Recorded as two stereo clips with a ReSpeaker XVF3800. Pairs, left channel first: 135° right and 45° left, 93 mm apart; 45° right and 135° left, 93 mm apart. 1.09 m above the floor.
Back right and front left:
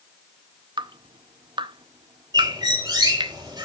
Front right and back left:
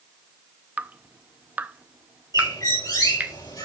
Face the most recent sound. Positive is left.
turn(degrees=0)